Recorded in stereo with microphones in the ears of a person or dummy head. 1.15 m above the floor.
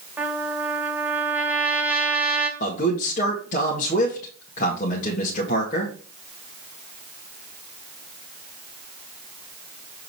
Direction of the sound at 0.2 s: 15° right (ahead or behind).